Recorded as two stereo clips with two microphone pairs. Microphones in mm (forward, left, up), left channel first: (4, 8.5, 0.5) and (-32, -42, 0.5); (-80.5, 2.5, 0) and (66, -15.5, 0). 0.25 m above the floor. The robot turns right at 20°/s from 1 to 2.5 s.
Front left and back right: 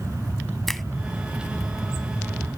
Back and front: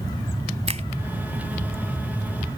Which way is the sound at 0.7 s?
30° right.